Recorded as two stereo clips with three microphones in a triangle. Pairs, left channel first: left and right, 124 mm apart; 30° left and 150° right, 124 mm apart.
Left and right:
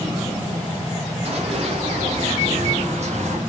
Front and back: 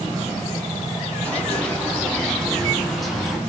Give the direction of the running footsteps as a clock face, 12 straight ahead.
2 o'clock.